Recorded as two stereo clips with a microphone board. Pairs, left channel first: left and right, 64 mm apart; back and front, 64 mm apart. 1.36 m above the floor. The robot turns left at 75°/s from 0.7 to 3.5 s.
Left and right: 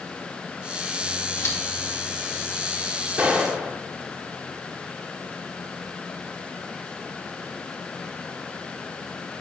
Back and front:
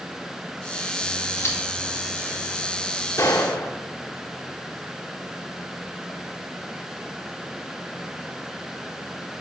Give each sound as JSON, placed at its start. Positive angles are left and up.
{"t": 1.4, "sound": "scissors", "azimuth_deg": 140, "distance_m": 1.9}
{"t": 3.2, "sound": "a gunshot", "azimuth_deg": -155, "distance_m": 1.6}